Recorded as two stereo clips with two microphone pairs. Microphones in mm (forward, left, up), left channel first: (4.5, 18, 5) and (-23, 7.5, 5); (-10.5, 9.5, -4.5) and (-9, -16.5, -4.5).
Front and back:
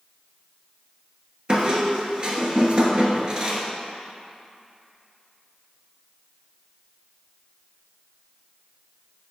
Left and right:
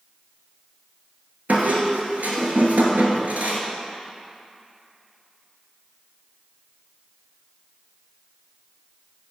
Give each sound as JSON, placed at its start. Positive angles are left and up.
{"t": 1.5, "sound": "a squeak", "azimuth_deg": -110, "distance_m": 1.4}